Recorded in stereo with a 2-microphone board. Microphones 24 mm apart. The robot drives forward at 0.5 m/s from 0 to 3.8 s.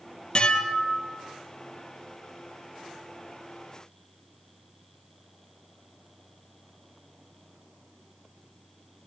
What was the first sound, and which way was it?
Dishes clattering, 40° left (ahead or behind).